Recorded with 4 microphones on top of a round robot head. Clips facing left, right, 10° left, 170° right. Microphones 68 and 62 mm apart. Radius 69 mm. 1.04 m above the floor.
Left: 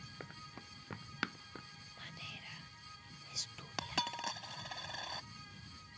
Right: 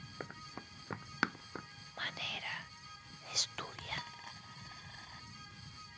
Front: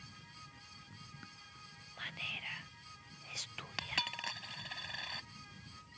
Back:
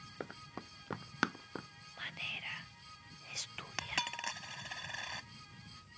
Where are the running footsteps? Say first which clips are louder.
Right 5 dB, back 9 dB; 160° right.